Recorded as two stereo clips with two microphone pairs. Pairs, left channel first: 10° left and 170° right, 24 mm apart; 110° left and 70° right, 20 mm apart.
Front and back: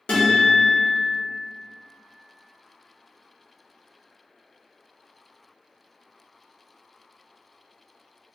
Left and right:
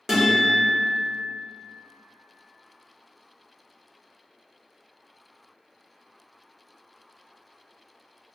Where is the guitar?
10° right, 1.2 m.